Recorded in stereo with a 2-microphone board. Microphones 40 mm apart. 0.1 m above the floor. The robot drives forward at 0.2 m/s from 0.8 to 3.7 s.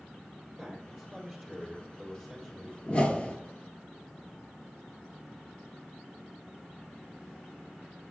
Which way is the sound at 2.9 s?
30° left (ahead or behind).